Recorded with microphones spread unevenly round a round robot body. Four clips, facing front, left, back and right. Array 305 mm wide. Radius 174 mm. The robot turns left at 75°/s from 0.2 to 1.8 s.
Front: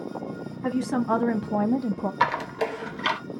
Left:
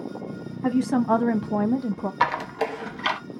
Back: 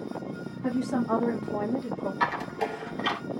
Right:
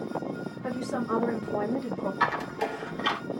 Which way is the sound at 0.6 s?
95° left.